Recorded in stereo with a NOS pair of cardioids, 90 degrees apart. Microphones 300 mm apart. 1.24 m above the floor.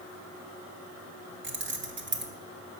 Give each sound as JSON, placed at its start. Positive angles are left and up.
{"t": 1.4, "sound": "keys jangling", "azimuth_deg": -35, "distance_m": 1.6}